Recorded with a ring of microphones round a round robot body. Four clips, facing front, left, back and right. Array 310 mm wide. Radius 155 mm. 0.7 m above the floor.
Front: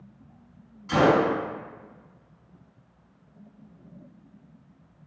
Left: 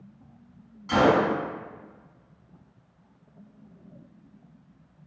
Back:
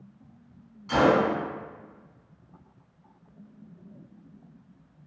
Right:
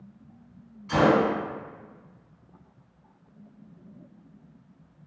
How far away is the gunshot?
About 1.6 m.